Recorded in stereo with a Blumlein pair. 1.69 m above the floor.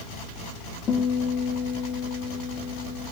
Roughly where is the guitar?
Ahead left.